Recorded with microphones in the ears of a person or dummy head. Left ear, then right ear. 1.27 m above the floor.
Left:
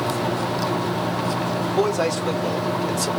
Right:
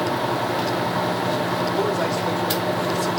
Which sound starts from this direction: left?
A man speaking, at 1.7 s.